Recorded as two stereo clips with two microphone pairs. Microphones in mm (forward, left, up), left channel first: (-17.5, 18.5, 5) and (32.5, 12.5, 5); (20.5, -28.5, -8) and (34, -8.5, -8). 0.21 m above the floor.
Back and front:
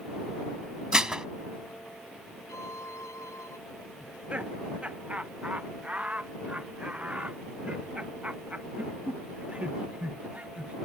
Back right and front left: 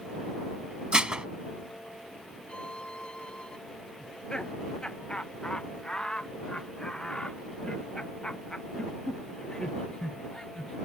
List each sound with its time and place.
0.9 s dishes clattering: 60° left
2.5 s a violin: 175° right
4.0 s laughter: 75° right